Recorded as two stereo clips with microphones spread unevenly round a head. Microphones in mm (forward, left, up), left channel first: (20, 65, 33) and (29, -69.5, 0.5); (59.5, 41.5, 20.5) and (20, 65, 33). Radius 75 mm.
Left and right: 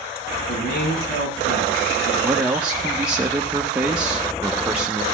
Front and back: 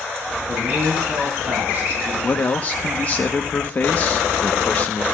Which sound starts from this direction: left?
A man speaking, at 0.5 s.